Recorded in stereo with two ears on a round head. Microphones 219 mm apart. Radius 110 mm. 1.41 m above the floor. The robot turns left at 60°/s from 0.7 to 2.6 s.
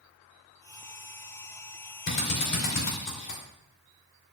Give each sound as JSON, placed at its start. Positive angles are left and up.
{"t": 2.1, "sound": "a drill", "side_deg": 45, "distance_m": 3.5}